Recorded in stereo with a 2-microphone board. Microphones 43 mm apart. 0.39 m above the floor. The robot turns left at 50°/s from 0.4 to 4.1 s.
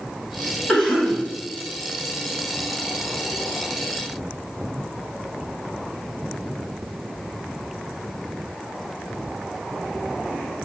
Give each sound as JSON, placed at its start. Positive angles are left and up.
{"t": 0.7, "sound": "a cough", "side_deg": 5, "distance_m": 1.7}